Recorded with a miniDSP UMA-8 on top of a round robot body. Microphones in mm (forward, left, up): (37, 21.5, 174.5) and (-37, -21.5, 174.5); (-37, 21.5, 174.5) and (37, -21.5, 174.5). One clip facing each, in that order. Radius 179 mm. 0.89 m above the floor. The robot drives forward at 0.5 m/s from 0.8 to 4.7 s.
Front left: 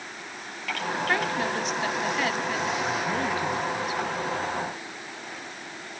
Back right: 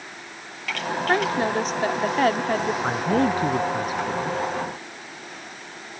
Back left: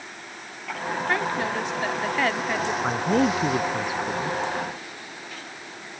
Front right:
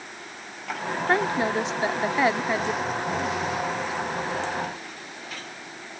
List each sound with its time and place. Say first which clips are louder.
1.1 s a woman speaking: back right 6 dB, front right 4 dB; 95° right; by 2.7 s 110° right
2.8 s a man speaking: back right 6 dB, back left 5 dB; 165° left